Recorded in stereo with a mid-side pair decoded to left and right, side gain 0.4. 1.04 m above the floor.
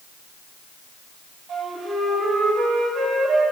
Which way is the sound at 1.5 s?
70° right.